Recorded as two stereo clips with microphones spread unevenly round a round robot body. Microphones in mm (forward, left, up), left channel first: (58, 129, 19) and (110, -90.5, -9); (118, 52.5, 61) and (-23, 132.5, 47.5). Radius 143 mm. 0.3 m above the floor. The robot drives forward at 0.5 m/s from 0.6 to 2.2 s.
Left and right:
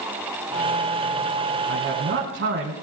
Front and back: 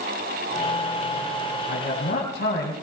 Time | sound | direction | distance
1.7 | a man speaking | 50° right | 3 m